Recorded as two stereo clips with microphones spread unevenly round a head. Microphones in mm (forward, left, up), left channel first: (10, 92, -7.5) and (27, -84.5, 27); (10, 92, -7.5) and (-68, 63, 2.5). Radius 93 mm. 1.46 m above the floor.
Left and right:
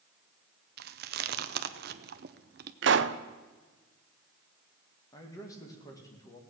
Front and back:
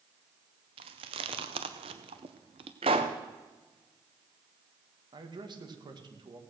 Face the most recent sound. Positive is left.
turn(degrees=170)